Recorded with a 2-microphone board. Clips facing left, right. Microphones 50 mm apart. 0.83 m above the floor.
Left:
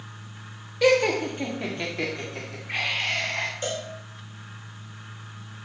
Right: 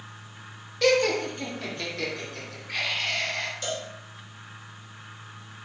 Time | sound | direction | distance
0.8 | laughter | 15° left (ahead or behind) | 1.5 m
3.6 | a cowbell | 30° left (ahead or behind) | 3.5 m